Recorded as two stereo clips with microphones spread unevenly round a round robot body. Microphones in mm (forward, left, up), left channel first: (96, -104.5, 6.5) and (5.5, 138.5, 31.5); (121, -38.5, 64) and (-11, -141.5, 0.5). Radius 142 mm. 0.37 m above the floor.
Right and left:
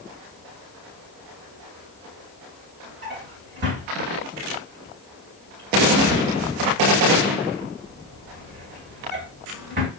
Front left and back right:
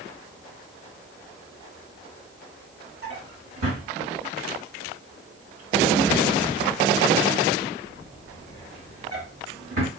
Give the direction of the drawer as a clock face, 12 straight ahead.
6 o'clock.